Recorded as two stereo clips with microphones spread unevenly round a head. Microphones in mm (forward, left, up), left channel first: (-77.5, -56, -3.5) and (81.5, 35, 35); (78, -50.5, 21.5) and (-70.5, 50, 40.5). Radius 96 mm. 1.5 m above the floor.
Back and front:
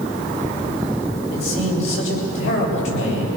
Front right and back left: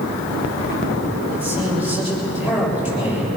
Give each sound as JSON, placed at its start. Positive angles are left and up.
{"t": 1.3, "sound": "a man speaking", "azimuth_deg": -135, "distance_m": 8.0}